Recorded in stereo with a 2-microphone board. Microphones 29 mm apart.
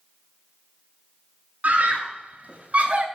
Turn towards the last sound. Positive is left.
turn(degrees=-50)  # may be behind; listen again after turning